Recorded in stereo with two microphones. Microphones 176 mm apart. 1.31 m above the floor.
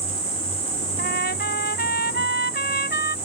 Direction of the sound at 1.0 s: 65° left (ahead or behind).